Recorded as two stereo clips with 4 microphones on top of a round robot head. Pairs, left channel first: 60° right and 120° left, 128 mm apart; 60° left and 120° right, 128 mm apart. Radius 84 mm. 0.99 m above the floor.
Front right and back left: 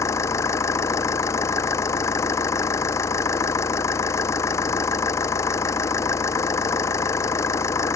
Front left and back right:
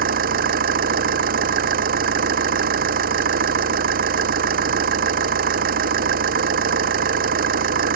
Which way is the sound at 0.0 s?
125° right.